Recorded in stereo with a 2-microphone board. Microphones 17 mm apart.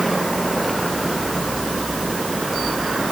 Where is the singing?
No singing in this recording.